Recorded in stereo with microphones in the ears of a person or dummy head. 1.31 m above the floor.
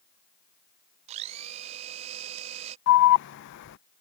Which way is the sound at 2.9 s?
65° left (ahead or behind).